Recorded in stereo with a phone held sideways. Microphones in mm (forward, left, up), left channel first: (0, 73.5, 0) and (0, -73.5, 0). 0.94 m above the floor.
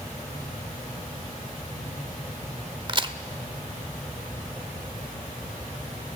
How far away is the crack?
About 0.9 m.